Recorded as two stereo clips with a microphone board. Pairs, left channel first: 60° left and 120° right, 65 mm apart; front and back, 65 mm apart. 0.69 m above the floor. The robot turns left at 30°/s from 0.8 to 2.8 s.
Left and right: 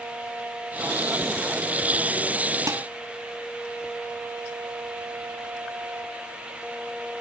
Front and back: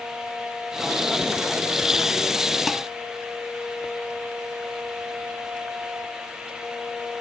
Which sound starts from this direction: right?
Dishes clattering, at 2.7 s.